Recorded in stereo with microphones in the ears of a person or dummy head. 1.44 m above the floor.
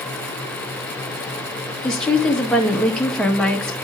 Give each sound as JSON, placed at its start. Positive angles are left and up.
{"t": 1.8, "sound": "a woman speaking", "side_deg": 10, "distance_m": 1.3}